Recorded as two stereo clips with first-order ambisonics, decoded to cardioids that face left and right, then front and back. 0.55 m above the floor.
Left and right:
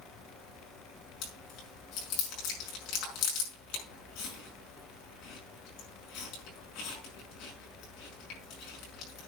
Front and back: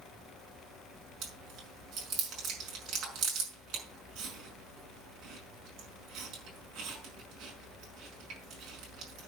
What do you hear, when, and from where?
1.2 s chewing: 125° left, 5.5 m